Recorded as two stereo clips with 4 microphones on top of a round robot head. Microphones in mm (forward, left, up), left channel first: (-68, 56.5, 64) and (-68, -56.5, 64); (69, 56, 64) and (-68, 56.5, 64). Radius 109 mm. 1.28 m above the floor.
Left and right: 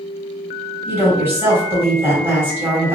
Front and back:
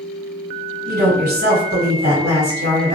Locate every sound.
0.9 s a woman speaking: 160° right, 1.5 m